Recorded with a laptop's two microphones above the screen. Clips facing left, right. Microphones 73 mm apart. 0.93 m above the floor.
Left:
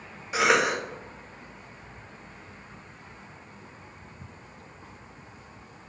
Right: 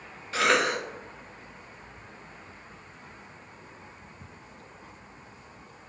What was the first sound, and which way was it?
A cough, 15° left (ahead or behind).